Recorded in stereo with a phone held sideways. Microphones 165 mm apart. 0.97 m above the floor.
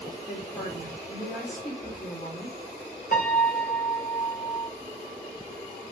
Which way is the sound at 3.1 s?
60° left (ahead or behind).